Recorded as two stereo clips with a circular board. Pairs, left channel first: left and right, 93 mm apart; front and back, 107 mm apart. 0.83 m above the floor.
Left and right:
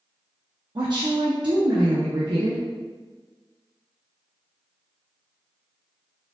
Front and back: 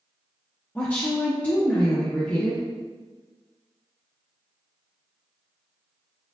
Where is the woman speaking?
75° right, 0.8 m.